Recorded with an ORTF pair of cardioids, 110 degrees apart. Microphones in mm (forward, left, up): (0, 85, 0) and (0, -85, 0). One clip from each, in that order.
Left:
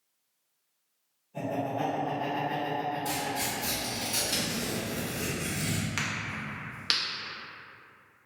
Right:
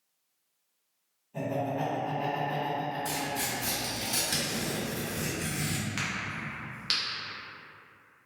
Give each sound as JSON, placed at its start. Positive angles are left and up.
{"t": 1.3, "sound": "laughter", "azimuth_deg": -25, "distance_m": 1.5}
{"t": 3.0, "sound": "tearing paper", "azimuth_deg": -20, "distance_m": 1.5}
{"t": 6.0, "sound": "a crack", "azimuth_deg": 15, "distance_m": 0.6}